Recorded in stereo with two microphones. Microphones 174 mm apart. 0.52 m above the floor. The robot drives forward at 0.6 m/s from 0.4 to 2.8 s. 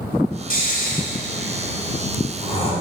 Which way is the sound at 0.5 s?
55° left (ahead or behind).